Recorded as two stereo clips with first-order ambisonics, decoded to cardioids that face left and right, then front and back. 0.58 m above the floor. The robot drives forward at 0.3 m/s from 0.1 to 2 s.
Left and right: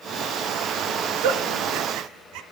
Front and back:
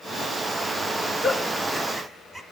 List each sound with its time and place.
1.2 s a giggle: 90° right, 0.8 m; by 2.4 s 110° right, 0.9 m